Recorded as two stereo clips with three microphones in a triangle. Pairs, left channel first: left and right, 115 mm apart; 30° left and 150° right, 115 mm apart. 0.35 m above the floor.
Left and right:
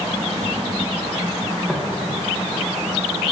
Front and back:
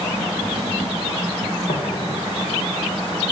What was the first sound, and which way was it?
Footsteps, straight ahead.